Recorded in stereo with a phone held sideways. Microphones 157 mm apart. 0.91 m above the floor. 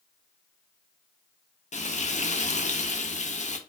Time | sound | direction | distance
1.7 | frying | 50° left (ahead or behind) | 0.5 m